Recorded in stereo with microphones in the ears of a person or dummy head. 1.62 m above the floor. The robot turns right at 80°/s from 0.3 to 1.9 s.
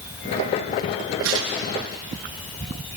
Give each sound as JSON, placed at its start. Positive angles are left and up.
{"t": 1.2, "sound": "tearing paper", "side_deg": -80, "distance_m": 7.0}